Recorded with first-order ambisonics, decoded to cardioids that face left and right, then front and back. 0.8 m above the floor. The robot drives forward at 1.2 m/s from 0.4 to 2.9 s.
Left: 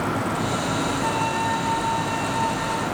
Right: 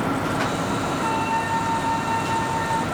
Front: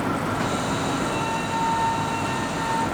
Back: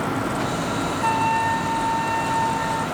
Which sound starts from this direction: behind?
A flute, at 1.0 s.